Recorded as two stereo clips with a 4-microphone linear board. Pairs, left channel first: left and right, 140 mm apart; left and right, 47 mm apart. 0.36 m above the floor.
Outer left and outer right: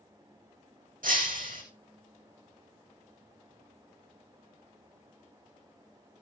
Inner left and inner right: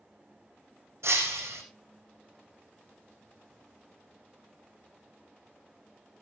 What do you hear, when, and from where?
1.0 s breaking glass: 80° right, 3.5 m